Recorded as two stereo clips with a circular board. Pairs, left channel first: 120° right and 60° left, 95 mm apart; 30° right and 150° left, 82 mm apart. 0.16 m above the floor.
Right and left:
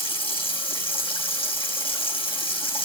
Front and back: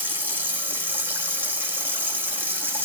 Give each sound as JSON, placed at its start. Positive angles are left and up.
{"t": 0.0, "sound": "running water", "azimuth_deg": -145, "distance_m": 4.5}